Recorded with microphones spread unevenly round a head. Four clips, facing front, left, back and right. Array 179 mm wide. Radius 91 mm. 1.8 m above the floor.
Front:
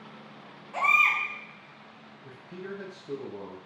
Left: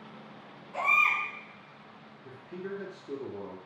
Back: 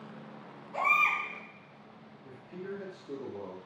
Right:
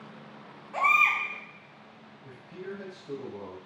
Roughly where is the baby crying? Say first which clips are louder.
Right 3 dB, front 3 dB; right.